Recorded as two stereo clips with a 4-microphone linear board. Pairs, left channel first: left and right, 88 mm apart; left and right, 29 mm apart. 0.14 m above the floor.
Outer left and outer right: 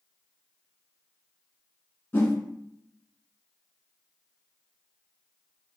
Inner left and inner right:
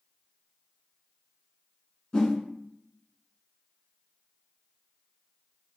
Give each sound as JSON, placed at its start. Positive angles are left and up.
{"t": 2.1, "sound": "a whoosh", "side_deg": 25, "distance_m": 0.8}